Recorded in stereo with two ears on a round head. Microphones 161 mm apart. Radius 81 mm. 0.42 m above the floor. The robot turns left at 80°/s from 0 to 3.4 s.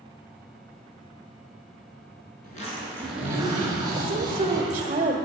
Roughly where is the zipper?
Ahead left.